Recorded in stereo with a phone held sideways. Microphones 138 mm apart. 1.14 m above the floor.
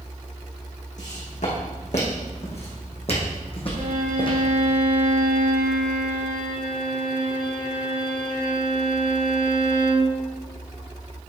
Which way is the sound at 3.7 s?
65° right (ahead or behind).